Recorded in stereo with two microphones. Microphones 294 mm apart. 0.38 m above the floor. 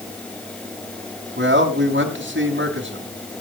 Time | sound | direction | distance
1.4 | a man speaking | 40° right (ahead or behind) | 3 m